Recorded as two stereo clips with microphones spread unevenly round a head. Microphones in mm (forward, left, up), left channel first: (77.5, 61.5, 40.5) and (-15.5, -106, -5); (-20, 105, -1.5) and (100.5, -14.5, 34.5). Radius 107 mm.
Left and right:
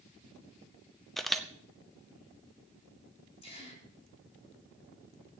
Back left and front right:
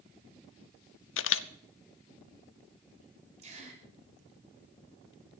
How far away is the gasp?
About 8.5 m.